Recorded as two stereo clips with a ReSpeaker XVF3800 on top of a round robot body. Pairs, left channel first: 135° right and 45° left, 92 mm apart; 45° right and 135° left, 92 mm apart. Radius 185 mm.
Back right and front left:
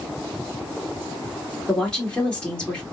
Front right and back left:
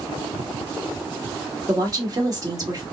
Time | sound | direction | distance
1.7 | a woman speaking | 150° left | 1.8 m